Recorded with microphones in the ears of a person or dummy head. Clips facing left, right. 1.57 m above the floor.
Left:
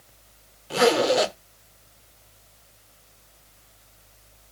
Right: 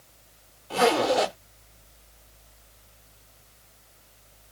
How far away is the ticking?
No ticking in this recording.